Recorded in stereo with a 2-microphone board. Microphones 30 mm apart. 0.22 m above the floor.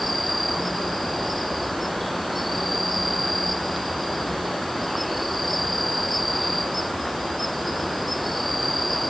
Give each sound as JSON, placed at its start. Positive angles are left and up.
{"t": 0.0, "sound": "an insect", "side_deg": 0}